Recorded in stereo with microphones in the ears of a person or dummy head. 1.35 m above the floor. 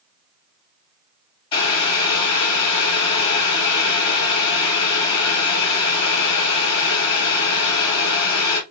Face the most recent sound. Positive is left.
turn(degrees=35)  # may be behind; listen again after turning